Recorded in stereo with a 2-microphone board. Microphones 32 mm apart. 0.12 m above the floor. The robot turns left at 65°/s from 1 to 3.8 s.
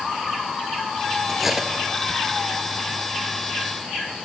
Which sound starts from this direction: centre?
Cutlery clinking, at 1.3 s.